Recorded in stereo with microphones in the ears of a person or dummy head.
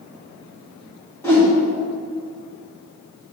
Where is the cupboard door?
No cupboard door in this recording.